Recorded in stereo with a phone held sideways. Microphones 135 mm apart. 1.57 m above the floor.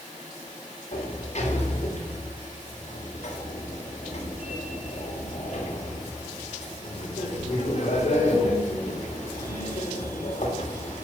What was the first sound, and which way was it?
A sliding door, 55° left (ahead or behind).